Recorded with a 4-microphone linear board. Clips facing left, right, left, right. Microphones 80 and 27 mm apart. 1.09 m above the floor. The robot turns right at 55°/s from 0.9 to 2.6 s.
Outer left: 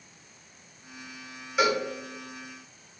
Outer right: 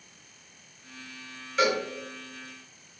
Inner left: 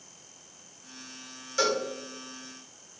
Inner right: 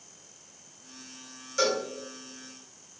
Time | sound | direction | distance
1.6 | a cowbell | 15° left (ahead or behind) | 0.9 m